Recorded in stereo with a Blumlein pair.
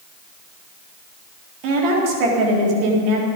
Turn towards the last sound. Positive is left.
turn(degrees=-40)